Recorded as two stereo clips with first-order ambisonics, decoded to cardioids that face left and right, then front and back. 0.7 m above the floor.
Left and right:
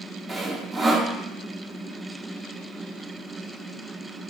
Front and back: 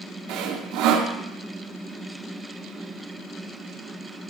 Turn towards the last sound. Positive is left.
turn(degrees=-165)